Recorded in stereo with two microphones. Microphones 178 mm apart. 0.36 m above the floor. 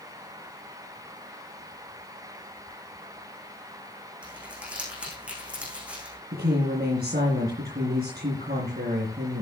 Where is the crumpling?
5° right (ahead or behind), 7.5 m.